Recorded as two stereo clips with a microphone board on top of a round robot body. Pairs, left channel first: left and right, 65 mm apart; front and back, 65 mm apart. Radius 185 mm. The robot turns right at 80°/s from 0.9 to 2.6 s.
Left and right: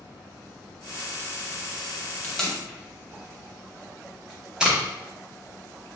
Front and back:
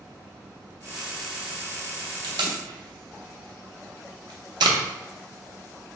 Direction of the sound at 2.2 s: 160° left.